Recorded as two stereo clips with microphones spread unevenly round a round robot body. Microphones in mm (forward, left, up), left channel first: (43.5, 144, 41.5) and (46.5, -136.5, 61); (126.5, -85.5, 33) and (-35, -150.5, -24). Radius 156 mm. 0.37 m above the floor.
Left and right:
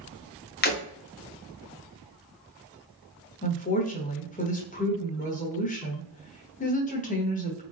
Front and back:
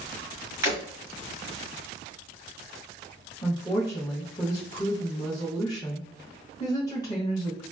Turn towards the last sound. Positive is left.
turn(degrees=105)